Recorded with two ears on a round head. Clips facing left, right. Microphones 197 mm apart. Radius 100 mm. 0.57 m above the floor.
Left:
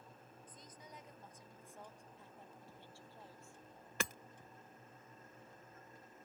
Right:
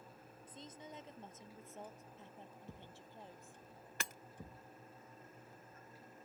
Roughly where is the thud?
Right.